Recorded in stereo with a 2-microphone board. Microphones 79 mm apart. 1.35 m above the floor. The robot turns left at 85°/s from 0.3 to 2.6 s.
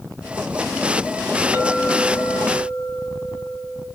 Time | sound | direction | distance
1.5 | a clink | 155° right | 5 m